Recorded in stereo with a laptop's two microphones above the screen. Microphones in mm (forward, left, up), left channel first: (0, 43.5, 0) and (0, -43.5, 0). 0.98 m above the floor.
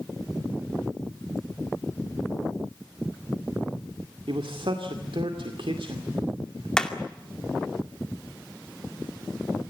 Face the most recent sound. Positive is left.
turn(degrees=10)  # may be behind; listen again after turning